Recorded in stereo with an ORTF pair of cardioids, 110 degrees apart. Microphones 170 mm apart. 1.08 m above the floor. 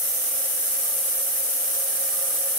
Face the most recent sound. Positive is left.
No sound to turn to.